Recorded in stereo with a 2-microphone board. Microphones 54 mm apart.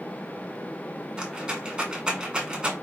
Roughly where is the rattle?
Centre.